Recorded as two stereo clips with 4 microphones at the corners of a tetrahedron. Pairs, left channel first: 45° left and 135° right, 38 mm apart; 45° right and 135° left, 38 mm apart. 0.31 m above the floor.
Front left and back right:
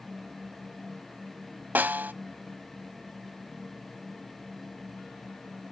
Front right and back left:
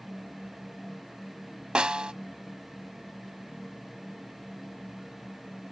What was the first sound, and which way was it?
A snare drum, 160° right.